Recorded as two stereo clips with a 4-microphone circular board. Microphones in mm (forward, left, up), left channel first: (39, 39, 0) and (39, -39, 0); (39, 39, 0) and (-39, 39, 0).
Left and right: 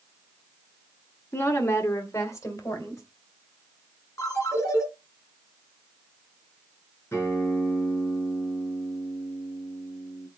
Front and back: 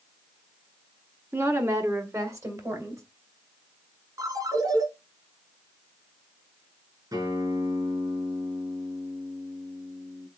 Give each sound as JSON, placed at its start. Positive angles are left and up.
{"t": 1.3, "sound": "a woman speaking", "azimuth_deg": 140, "distance_m": 1.2}
{"t": 4.2, "sound": "a ringtone", "azimuth_deg": 140, "distance_m": 4.0}
{"t": 7.1, "sound": "a guitar", "azimuth_deg": 150, "distance_m": 5.5}